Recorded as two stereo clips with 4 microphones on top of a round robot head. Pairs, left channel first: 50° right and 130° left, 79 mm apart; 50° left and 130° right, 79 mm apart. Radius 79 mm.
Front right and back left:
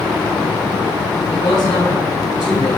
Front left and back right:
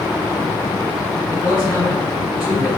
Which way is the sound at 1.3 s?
60° right.